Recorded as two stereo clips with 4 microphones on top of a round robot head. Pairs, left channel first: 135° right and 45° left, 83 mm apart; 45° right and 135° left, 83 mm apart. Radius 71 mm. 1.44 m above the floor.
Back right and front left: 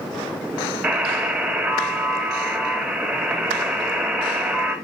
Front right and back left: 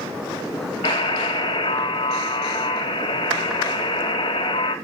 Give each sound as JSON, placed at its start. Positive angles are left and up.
{"t": 0.8, "sound": "a buzzer", "azimuth_deg": -35, "distance_m": 2.5}